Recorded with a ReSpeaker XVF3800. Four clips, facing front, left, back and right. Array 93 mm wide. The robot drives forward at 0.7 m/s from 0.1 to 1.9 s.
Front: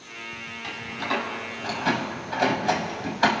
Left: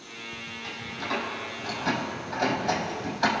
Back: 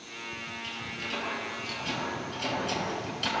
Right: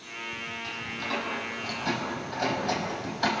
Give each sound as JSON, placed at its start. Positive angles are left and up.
{"t": 0.6, "sound": "a door slam", "azimuth_deg": 5, "distance_m": 4.5}